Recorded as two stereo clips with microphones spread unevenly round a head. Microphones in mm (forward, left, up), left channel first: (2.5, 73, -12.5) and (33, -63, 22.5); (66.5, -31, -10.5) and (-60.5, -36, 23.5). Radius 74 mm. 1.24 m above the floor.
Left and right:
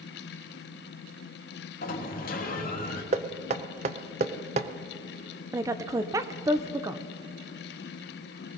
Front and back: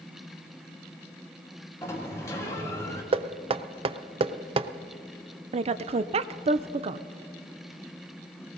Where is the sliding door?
75° left, 1.5 m.